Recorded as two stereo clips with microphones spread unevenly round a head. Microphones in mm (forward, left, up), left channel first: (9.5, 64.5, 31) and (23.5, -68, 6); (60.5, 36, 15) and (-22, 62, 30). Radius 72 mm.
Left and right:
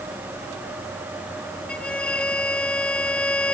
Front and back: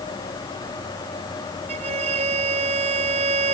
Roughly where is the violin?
Behind.